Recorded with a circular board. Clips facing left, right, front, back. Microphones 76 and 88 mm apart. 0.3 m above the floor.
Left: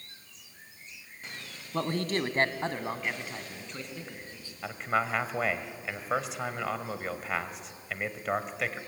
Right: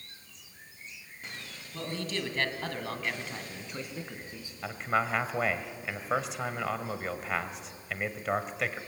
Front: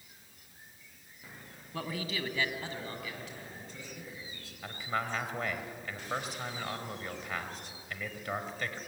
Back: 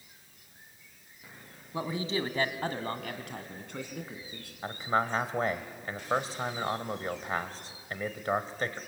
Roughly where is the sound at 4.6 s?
Behind.